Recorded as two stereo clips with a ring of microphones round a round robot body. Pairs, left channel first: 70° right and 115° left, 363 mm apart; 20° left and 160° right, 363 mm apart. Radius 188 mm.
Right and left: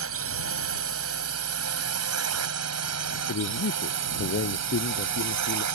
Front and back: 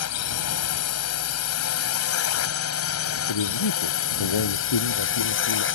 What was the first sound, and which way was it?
A drone, 65° left.